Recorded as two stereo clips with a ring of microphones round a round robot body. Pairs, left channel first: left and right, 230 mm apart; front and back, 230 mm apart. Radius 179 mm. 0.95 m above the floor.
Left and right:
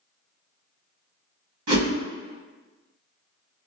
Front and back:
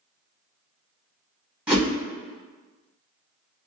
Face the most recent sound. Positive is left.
turn(degrees=-95)